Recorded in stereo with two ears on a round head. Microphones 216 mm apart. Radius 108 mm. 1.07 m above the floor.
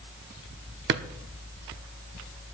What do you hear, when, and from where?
0.9 s a drawer: 45° right (ahead or behind), 0.8 m